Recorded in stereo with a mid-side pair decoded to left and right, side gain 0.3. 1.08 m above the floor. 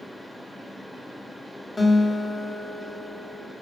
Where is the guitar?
20° left, 1.5 m.